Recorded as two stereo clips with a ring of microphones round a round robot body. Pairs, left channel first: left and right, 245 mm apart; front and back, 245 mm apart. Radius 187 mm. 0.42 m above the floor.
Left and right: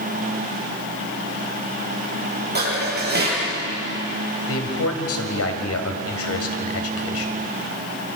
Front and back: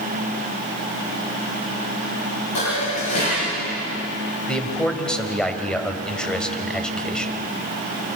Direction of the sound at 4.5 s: 85° left.